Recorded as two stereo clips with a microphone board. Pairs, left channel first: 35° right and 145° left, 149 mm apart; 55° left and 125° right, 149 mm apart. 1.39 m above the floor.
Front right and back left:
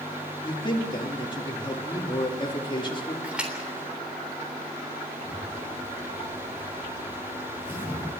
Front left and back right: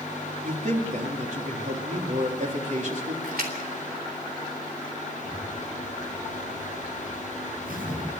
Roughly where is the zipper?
Behind right.